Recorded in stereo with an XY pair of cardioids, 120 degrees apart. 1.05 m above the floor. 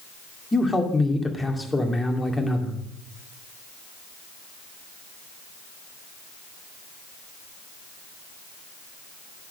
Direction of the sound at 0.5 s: 15° left.